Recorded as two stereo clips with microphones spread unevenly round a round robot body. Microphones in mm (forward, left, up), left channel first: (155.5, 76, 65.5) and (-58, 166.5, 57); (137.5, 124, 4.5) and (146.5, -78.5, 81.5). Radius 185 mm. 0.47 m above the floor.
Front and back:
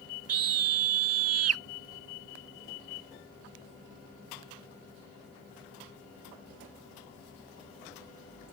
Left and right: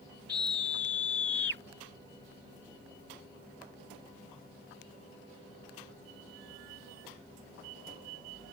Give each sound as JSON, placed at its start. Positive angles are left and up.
{"t": 0.3, "sound": "a scream", "azimuth_deg": 175}